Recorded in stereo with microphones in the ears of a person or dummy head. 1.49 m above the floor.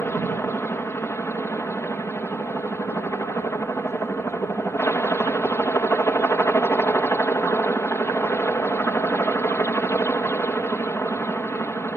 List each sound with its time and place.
0.0 s a helicopter: 10° left (ahead or behind)